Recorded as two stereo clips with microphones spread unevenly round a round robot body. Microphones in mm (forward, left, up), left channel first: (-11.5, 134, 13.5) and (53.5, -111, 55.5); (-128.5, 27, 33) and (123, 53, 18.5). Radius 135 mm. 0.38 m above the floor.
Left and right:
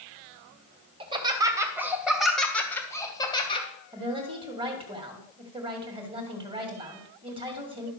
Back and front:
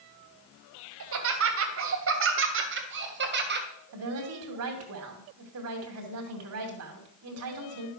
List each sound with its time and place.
1.0 s laughter: straight ahead, 2.5 m; by 3.7 s 45° left, 2.5 m
3.9 s a woman speaking: straight ahead, 2.5 m